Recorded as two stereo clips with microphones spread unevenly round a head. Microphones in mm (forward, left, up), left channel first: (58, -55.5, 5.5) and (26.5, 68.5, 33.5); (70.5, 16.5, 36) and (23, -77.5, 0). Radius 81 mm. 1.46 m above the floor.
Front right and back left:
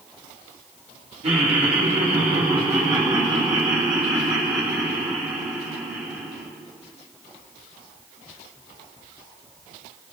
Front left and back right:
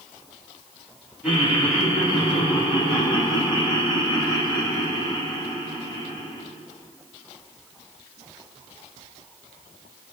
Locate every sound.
1.2 s laughter: 155° left, 4.5 m; by 6.4 s straight behind, 7 m